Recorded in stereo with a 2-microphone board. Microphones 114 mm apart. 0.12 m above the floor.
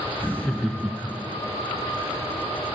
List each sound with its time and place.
0.2 s laughter: 20° left (ahead or behind), 1.2 m; by 1.4 s 20° right (ahead or behind), 1.4 m